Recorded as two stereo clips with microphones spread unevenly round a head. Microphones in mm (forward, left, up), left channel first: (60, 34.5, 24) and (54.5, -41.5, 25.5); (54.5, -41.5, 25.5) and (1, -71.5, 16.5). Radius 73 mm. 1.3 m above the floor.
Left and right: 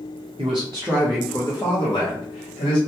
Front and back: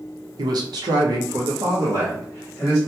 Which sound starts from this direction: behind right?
A man speaking, at 0.4 s.